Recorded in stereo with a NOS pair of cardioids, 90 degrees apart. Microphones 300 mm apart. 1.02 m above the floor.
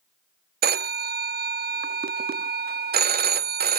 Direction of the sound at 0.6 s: 35° right.